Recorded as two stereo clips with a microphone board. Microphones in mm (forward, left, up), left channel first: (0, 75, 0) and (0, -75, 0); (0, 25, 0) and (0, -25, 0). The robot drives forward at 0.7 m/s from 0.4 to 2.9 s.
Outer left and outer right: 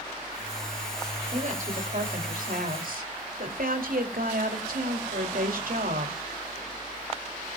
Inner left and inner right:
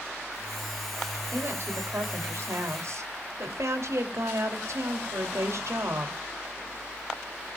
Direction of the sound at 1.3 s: 55° right (ahead or behind).